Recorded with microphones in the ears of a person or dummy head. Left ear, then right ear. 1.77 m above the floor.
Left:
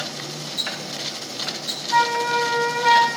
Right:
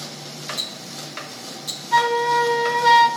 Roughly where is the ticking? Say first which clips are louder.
Left 6 dB; centre.